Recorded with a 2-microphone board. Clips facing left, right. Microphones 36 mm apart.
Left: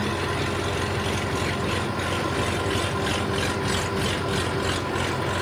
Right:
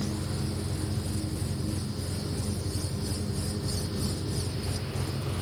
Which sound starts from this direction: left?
An engine running, at 0.0 s.